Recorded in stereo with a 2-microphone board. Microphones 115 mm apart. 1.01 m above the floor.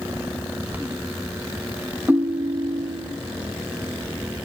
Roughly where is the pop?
I don't hear a pop.